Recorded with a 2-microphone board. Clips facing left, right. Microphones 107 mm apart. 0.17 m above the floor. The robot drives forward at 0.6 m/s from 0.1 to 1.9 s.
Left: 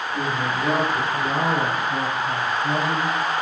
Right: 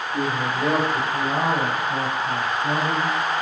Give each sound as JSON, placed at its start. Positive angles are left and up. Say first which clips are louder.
{"t": 0.1, "sound": "a man speaking", "louder": "right 1 dB", "side_deg": -30, "distance_m": 3.0}